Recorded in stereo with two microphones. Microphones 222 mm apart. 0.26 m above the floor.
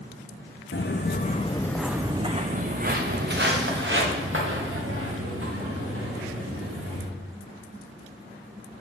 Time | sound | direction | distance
0.7 | footsteps | 60° left (ahead or behind) | 0.7 m